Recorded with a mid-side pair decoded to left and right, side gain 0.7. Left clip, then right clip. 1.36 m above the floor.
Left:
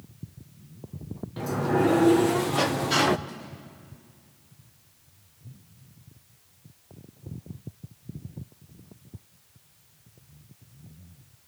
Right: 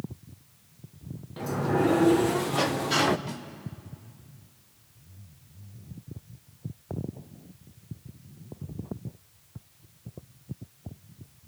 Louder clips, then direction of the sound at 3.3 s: Right 2 dB; 35° right.